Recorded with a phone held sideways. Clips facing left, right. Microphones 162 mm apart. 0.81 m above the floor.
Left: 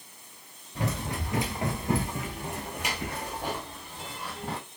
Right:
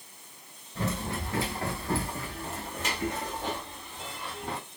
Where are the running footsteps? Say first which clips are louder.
Even; 15° left (ahead or behind), 1.0 m; by 4.6 s 5° left (ahead or behind), 1.7 m.